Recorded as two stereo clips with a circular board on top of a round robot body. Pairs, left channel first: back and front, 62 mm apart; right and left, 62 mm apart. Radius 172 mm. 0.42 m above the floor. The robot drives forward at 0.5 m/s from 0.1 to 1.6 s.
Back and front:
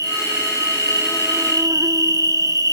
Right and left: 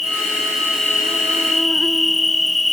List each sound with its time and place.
0.0 s an insect: straight ahead, 2 m